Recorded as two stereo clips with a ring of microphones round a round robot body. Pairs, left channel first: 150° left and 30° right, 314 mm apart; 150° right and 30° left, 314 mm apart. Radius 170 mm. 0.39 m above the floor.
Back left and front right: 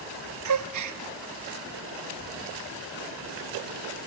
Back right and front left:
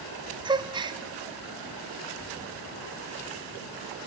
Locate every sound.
0.5 s a gasp: 45° right, 1.0 m